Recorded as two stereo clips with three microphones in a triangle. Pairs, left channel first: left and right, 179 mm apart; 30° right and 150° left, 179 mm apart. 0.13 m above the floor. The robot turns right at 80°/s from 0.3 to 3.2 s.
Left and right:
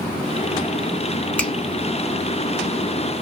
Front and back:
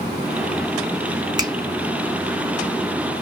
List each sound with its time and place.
1.4 s a finger snap: 160° left, 0.9 m; by 1.5 s 170° left, 0.9 m